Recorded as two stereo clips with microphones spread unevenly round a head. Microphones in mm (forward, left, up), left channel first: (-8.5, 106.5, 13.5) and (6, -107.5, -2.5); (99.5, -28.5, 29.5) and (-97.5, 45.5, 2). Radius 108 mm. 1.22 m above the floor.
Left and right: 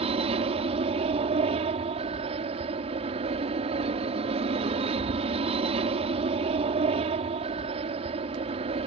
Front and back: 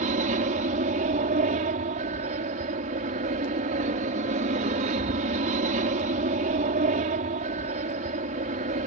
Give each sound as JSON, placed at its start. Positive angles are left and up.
{"t": 0.0, "sound": "an aircraft", "azimuth_deg": -145}